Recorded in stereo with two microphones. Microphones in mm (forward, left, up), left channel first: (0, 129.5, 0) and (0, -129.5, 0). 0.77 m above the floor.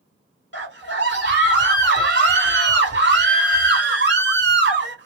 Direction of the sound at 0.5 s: 45° right (ahead or behind).